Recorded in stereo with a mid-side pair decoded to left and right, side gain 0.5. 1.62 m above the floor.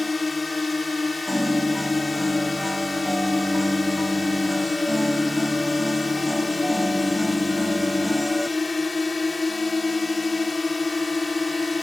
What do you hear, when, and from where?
0.0 s a drone: 20° left
1.3 s a piano: straight ahead